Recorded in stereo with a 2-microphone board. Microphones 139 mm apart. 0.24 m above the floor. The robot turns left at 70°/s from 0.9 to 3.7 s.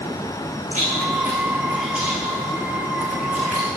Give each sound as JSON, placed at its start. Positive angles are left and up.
{"t": 0.7, "sound": "chewing", "side_deg": 70, "distance_m": 7.5}